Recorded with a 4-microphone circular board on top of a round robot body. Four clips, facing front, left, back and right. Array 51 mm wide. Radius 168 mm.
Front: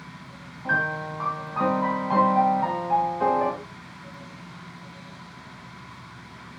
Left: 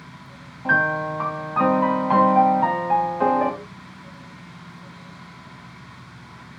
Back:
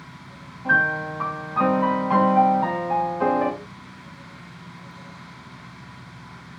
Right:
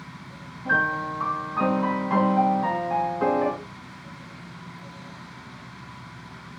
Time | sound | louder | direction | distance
0.7 | a piano | left 3 dB, back 5 dB | 95° left | 1.9 m